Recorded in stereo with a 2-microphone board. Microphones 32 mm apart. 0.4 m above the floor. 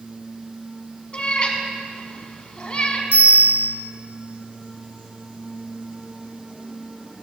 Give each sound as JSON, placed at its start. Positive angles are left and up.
{"t": 1.1, "sound": "a cat meowing", "side_deg": 30, "distance_m": 1.3}
{"t": 3.1, "sound": "a bell", "side_deg": -65, "distance_m": 3.5}